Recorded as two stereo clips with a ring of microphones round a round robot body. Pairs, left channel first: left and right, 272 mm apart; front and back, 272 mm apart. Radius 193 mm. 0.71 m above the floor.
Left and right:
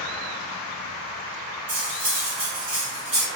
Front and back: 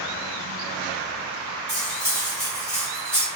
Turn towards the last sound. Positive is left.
turn(degrees=-100)